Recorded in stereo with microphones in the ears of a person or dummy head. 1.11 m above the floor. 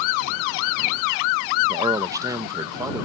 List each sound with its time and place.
1.7 s a man speaking: 20° right (ahead or behind)